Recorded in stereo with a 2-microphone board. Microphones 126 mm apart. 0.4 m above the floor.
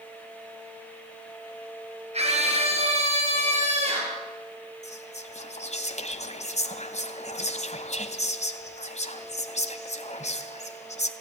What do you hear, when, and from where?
2.1 s a scream: 55° right (ahead or behind), 7.5 m; by 4.2 s 60° right (ahead or behind), 9 m
4.8 s whispering: 65° left (ahead or behind), 2 m